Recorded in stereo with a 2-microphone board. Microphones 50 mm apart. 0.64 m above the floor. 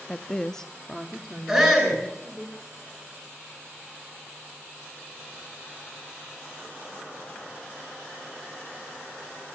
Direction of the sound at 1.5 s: 5° right (ahead or behind).